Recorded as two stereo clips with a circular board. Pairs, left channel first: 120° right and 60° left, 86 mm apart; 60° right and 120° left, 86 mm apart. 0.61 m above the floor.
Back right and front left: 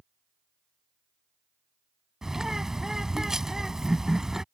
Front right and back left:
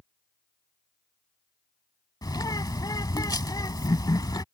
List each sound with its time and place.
2.2 s a bird: 25° right